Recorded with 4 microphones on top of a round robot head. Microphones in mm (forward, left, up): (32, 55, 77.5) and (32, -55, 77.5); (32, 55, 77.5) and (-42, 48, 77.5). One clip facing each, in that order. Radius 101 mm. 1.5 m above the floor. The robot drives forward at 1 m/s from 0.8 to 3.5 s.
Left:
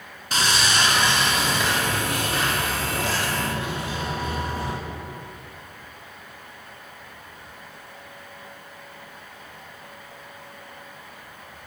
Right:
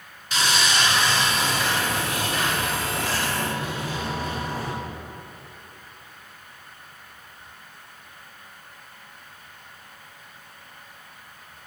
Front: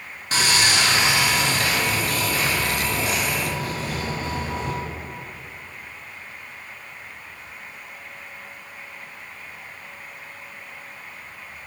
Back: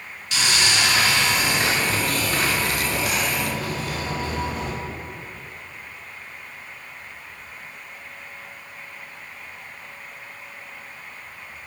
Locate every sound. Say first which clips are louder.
0.3 s sawing: even, front 2 dB; 45° left, 1.0 m; by 4.7 s 165° left, 2.5 m